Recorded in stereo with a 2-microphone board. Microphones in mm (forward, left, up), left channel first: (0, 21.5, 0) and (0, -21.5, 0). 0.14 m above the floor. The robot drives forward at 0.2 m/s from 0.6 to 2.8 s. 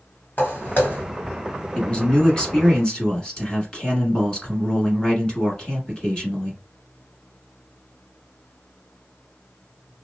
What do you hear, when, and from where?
0.4 s footsteps: 50° left (ahead or behind), 1.2 m; by 1.0 s 45° left (ahead or behind), 1.3 m
1.8 s a man speaking: 25° left (ahead or behind), 1.1 m; by 6.6 s 20° left (ahead or behind), 1.2 m